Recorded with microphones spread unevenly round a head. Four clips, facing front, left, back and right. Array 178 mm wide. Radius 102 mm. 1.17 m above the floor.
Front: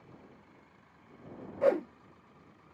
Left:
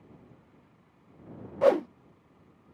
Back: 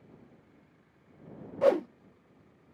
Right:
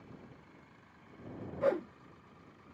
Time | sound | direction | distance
1.6 | a whoosh | straight behind | ?